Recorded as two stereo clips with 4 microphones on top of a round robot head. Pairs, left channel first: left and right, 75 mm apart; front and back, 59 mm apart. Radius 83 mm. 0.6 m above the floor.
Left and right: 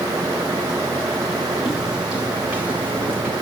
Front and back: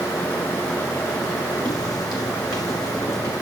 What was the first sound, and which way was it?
Footsteps, straight ahead.